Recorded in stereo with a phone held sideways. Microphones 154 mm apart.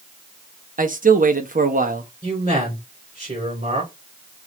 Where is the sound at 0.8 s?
60° right (ahead or behind), 0.8 m.